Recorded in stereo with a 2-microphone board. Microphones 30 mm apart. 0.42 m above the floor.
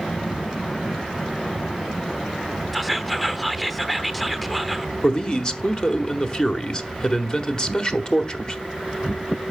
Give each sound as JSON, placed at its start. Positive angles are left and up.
{"t": 2.7, "sound": "whispering", "side_deg": 5, "distance_m": 0.8}
{"t": 5.0, "sound": "a man speaking", "side_deg": 30, "distance_m": 1.2}